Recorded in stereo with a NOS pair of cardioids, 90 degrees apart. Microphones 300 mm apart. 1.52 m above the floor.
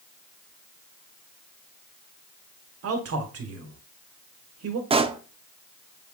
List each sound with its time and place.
2.8 s a man speaking: 55° right, 1.3 m
4.9 s a pop: 20° right, 0.5 m